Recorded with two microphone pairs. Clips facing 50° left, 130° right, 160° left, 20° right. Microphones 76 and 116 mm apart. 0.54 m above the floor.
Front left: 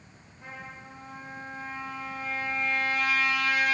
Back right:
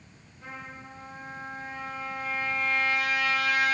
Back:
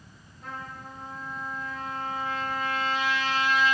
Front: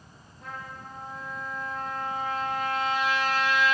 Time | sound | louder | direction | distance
0.4 | a trumpet | back right 1 dB, back 1 dB | 15° right | 1.6 m